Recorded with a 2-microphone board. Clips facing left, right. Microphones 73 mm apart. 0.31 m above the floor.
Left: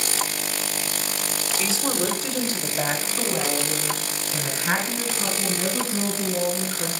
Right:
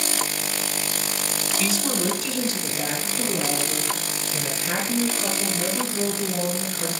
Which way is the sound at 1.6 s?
25° left (ahead or behind).